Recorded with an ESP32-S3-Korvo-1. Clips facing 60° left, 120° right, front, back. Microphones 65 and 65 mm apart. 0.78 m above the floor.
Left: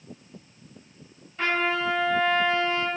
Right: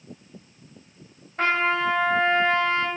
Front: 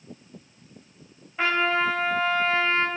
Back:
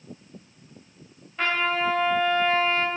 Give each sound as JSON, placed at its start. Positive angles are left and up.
{"t": 1.4, "sound": "a trumpet", "azimuth_deg": -80, "distance_m": 1.0}